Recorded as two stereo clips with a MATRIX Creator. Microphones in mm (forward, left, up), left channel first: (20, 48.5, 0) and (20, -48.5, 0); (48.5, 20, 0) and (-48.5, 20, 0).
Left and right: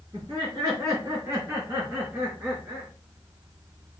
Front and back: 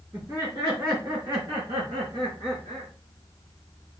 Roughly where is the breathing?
No breathing in this recording.